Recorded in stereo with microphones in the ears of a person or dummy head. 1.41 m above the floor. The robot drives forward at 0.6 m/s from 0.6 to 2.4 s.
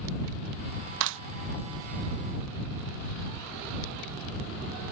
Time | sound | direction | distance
1.0 | a clap | 60° right (ahead or behind) | ?